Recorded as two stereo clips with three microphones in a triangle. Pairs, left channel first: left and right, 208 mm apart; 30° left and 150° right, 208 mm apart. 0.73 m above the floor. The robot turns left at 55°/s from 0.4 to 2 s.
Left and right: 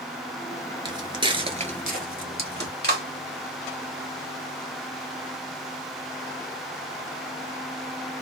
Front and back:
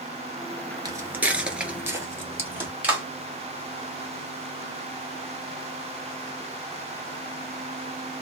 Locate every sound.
0.8 s footsteps: 110° right, 0.7 m; by 2.7 s 70° right, 1.3 m
2.8 s a clap: 70° right, 1.4 m